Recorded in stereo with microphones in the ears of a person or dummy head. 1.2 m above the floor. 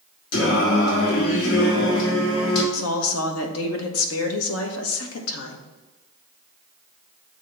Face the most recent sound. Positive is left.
turn(degrees=80)